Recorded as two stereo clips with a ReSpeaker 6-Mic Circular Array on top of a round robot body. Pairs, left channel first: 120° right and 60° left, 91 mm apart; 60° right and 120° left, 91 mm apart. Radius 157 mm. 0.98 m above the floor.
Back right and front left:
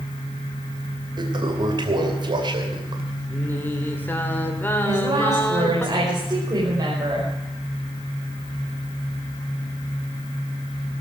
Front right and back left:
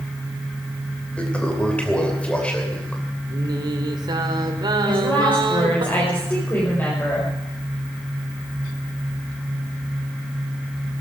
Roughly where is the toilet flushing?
Ahead.